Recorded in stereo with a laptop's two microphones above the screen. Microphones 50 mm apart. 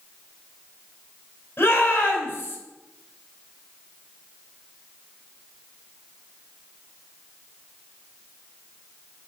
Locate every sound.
1.6 s a shout: 45° left (ahead or behind), 4 m